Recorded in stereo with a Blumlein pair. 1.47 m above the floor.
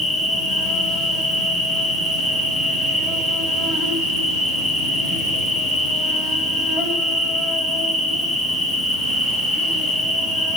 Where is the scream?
No scream in this recording.